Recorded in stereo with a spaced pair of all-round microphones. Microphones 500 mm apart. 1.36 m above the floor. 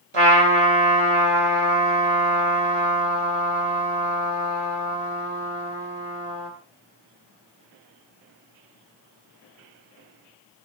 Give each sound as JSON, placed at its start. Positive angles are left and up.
{"t": 0.1, "sound": "a trumpet", "side_deg": -90, "distance_m": 2.5}